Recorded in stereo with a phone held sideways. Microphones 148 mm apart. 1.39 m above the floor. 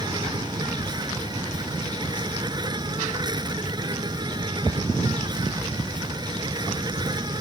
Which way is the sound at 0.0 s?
30° right (ahead or behind).